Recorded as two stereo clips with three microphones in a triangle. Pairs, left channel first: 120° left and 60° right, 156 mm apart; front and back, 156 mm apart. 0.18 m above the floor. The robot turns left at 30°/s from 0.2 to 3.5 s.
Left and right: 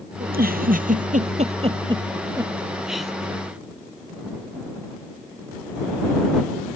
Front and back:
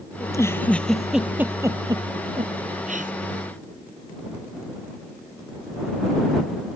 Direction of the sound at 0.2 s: 65° right.